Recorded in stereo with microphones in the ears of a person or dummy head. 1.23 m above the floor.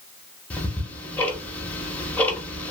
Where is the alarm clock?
No alarm clock in this recording.